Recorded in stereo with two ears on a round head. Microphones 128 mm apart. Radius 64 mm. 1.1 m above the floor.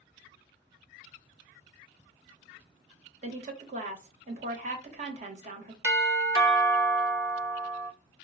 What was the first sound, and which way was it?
A woman speaking, 55° right (ahead or behind).